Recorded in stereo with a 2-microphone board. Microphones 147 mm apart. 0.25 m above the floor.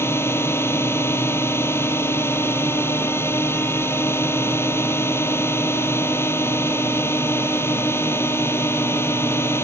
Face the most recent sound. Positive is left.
turn(degrees=15)  # may be behind; listen again after turning